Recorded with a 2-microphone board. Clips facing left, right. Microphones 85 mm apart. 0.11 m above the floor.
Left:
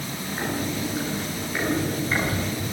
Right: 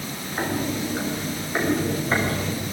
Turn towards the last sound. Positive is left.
turn(degrees=-35)  # may be behind; listen again after turning